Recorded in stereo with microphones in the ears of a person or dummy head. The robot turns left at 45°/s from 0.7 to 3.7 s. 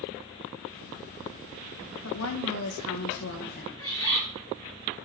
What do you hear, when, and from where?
2.0 s a woman speaking: 115° left, 1.5 m; by 3.7 s 40° left, 1.5 m
3.8 s a bird: 15° left (ahead or behind), 5 m